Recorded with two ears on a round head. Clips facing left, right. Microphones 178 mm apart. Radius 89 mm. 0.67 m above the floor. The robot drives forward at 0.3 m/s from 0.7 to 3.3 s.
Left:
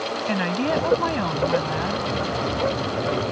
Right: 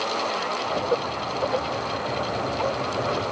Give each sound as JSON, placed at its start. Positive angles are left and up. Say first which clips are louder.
{"t": 0.3, "sound": "a woman speaking", "louder": "left 5 dB", "side_deg": 80}